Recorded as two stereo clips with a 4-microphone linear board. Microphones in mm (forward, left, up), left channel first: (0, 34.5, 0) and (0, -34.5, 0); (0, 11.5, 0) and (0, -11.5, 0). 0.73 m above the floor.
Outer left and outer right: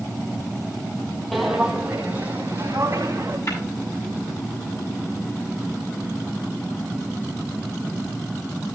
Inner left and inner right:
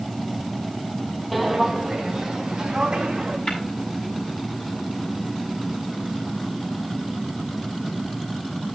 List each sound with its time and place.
1.3 s footsteps: centre (ahead or behind), 1.5 m; by 3.4 s 35° right (ahead or behind), 3.5 m
3.5 s tapping: 45° left (ahead or behind), 7 m